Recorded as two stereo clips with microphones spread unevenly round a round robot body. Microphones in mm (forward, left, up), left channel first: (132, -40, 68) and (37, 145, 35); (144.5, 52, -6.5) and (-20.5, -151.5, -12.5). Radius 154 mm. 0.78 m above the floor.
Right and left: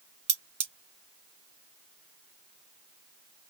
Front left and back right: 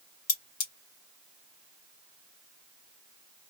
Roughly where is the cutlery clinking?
Left.